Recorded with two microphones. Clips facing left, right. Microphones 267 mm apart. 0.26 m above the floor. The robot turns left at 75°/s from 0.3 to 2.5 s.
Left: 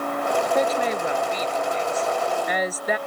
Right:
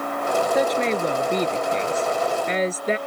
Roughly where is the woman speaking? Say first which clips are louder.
Right 2 dB; ahead.